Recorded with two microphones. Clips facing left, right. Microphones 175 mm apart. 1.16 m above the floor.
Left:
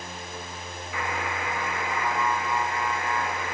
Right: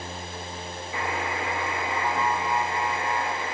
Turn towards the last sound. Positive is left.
turn(degrees=-25)  # may be behind; listen again after turning